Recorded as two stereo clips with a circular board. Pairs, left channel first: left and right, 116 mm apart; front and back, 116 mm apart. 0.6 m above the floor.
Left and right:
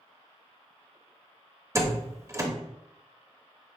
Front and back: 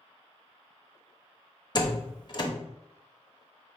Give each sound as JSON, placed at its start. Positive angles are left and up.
{"t": 1.8, "sound": "a door slam", "azimuth_deg": -35, "distance_m": 0.7}